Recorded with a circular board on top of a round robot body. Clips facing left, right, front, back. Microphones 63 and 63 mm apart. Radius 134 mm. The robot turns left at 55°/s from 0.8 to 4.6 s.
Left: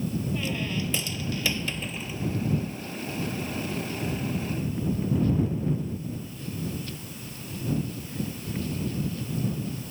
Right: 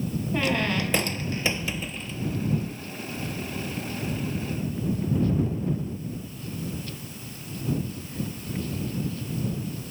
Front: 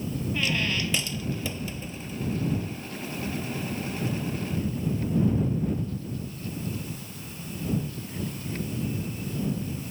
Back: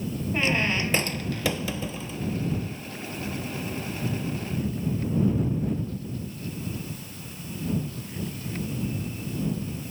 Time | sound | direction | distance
0.3 | a squeak | 120° right | ?